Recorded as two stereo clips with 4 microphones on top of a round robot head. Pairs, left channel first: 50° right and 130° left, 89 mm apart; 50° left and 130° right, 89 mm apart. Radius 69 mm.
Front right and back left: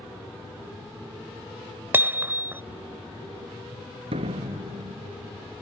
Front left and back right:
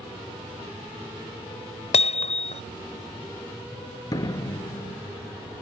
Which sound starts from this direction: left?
A door slam, at 4.1 s.